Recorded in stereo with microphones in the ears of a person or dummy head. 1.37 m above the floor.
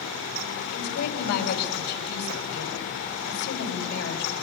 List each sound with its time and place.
0.7 s a woman speaking: 60° left (ahead or behind), 4 m